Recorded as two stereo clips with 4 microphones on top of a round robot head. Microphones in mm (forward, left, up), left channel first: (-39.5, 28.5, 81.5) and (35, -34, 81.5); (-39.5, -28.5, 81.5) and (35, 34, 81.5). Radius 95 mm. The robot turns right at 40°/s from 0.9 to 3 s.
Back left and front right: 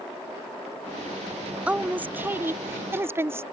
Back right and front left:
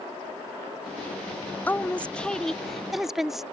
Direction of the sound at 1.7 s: 95° right.